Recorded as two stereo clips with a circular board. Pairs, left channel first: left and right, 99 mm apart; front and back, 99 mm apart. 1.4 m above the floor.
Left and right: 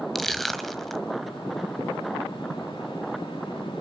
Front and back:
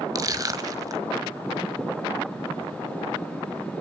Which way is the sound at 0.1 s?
175° left.